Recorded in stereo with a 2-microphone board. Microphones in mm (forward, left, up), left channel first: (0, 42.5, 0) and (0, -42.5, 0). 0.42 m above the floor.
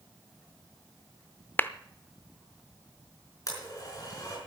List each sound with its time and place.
1.6 s a clap: 25° left (ahead or behind), 0.6 m
3.5 s a blender: 45° left (ahead or behind), 4.5 m